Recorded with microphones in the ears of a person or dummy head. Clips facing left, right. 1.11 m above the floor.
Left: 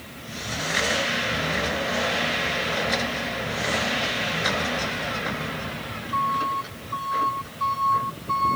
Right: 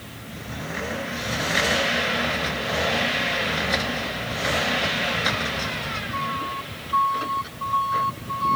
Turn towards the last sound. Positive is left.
No sound to turn to.